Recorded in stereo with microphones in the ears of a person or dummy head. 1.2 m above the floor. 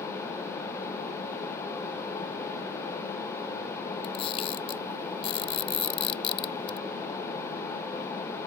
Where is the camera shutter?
30° left (ahead or behind).